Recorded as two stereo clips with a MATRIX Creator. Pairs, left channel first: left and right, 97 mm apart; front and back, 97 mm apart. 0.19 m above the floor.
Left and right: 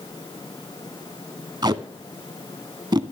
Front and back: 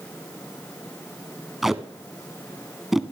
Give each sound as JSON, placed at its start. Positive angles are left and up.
{"t": 1.6, "sound": "tape being pulled", "azimuth_deg": -95, "distance_m": 0.6}